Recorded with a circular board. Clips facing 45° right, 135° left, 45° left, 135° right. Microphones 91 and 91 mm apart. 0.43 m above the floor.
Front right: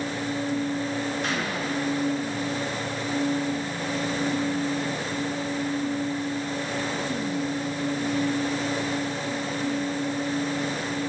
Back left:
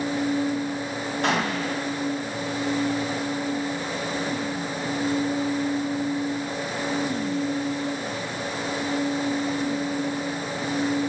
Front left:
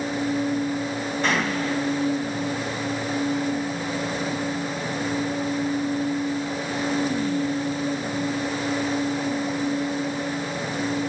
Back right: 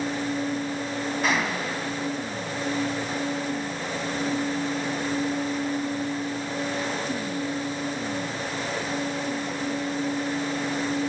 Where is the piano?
I don't hear a piano.